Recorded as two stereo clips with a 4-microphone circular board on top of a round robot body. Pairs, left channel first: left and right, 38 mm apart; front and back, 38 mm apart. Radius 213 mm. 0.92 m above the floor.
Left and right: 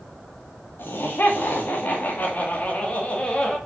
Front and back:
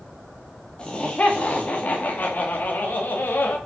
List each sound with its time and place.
0.8 s laughter: 60° left, 2 m; by 3.6 s 20° left, 2.5 m